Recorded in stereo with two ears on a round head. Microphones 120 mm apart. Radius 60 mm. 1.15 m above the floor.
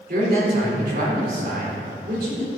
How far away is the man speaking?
About 3.5 m.